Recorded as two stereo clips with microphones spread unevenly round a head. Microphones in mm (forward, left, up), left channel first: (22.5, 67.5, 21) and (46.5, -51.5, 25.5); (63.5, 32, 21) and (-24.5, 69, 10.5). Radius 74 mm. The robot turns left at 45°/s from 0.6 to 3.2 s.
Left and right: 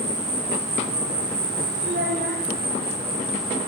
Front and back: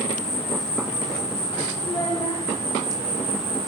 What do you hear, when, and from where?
0.0 s an insect: 45° right, 3.5 m; by 3.7 s 165° right, 3.5 m
1.8 s a child speaking: 85° right, 1.8 m; by 2.4 s 115° right, 1.8 m